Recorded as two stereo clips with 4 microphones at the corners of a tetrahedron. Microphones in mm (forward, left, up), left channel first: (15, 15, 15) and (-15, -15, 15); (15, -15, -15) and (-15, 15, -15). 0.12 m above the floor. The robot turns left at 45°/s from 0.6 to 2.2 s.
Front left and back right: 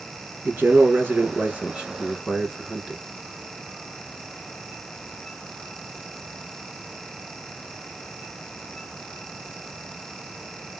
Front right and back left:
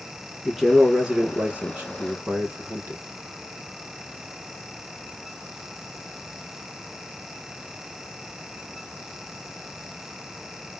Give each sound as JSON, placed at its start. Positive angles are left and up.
{"t": 0.5, "sound": "a man speaking", "azimuth_deg": -140, "distance_m": 1.9}